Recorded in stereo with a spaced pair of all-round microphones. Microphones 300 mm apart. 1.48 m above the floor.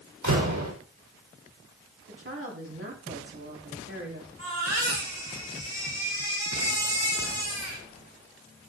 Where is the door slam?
75° right (ahead or behind), 4.5 m.